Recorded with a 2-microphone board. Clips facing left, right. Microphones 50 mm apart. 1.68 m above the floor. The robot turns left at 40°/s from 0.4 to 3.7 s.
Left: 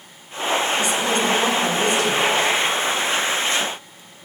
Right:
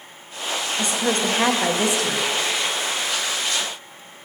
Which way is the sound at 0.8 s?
40° right.